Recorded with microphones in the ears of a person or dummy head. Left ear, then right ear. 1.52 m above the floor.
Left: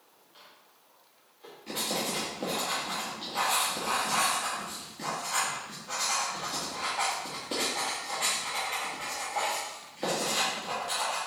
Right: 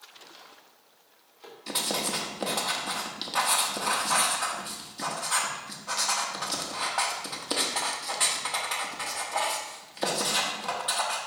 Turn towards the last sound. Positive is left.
turn(degrees=-45)  # may be behind; listen again after turning